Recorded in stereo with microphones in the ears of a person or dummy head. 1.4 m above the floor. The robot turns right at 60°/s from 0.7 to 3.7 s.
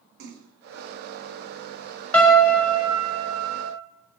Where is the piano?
170° left, 0.6 m; by 3.7 s 95° right, 0.6 m.